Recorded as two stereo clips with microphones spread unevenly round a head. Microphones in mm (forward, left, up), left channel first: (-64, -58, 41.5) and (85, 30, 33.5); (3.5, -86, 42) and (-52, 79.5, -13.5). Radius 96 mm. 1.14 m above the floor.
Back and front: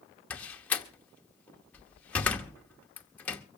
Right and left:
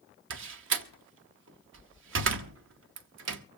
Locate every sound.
0.3 s a door slam: 130° left, 0.9 m